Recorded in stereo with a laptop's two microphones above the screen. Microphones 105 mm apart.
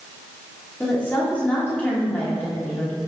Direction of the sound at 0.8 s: 15° left (ahead or behind).